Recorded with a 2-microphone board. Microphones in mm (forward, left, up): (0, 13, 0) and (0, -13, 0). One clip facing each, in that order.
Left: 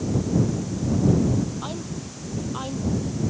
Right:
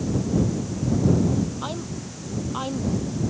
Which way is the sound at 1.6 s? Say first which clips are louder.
Right 1 dB; 10° right (ahead or behind).